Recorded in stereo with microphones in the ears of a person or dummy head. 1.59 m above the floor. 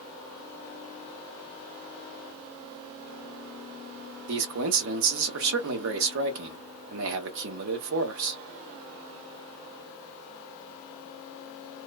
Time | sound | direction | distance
4.3 | a man speaking | 65° right (ahead or behind) | 0.8 m